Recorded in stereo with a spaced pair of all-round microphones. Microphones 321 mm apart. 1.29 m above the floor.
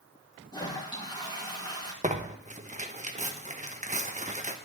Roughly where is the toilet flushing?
Centre.